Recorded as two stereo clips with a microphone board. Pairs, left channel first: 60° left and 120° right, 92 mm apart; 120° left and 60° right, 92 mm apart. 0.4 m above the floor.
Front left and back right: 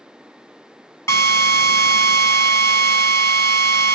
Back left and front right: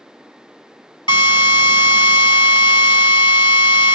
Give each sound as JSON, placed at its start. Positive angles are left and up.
{"t": 1.1, "sound": "a drill", "azimuth_deg": 110, "distance_m": 2.0}